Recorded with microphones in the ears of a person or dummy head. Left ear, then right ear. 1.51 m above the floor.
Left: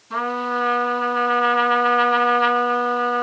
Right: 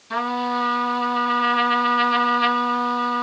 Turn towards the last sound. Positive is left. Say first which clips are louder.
# even
turn(degrees=-40)  # may be behind; listen again after turning